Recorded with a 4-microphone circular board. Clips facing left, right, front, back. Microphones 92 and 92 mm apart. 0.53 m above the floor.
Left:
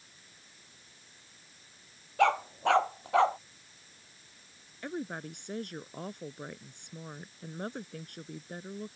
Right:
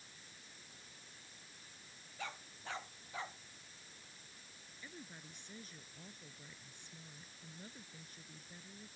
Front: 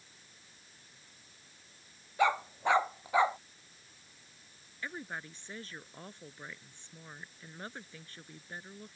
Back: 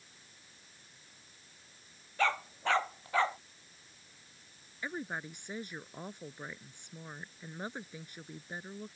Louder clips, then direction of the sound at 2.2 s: Left 23 dB, front 3 dB; 75° left.